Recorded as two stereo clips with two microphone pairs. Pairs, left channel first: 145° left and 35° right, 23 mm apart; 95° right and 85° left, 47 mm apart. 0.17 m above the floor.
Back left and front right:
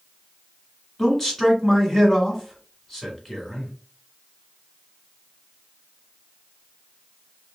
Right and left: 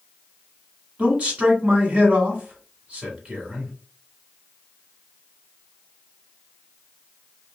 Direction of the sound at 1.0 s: 100° left.